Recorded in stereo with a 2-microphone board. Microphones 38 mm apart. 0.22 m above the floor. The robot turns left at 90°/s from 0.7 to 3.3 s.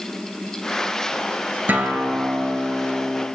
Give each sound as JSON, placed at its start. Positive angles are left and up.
{"t": 1.7, "sound": "a guitar", "azimuth_deg": -60, "distance_m": 1.7}